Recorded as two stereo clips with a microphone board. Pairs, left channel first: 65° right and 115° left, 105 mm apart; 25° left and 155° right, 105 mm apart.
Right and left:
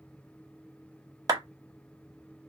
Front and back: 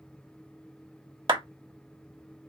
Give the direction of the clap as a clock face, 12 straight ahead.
6 o'clock.